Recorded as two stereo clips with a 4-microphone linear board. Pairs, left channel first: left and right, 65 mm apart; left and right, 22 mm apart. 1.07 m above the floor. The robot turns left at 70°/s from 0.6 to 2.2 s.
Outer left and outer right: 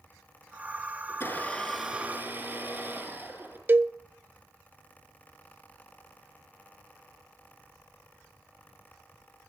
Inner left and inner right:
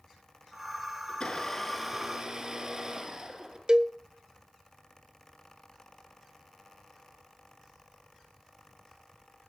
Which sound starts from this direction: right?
A cowbell, at 3.7 s.